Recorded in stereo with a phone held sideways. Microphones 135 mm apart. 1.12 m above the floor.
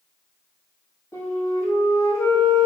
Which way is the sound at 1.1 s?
20° left (ahead or behind).